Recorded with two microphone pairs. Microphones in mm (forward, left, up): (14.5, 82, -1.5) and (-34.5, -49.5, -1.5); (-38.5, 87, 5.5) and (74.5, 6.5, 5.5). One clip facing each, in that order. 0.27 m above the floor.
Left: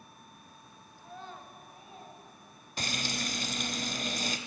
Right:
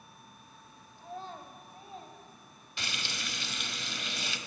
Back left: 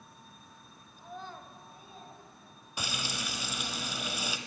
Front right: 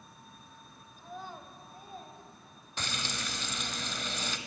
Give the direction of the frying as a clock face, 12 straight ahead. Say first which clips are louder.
Left 6 dB, back left 1 dB; 10 o'clock.